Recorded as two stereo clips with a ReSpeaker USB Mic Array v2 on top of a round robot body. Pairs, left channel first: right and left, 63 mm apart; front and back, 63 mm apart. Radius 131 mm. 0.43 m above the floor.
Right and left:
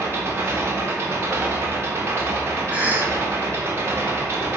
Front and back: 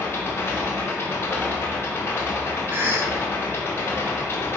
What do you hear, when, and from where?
0.0 s an engine running: 45° left, 0.9 m
2.7 s a cough: 145° left, 0.9 m